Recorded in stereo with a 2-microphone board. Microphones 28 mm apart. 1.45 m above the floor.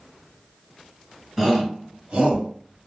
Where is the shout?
5° right (ahead or behind), 1.1 m; by 2.5 s 50° right (ahead or behind), 1.5 m.